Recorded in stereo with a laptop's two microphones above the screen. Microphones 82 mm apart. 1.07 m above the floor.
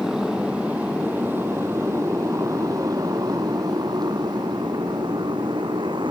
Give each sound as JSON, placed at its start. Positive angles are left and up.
{"t": 0.0, "sound": "a motorcycle", "side_deg": -5}